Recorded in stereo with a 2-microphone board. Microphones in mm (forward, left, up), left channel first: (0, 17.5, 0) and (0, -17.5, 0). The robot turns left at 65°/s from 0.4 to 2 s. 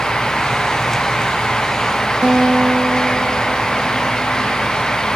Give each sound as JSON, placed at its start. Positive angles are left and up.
{"t": 2.2, "sound": "a guitar", "side_deg": -25}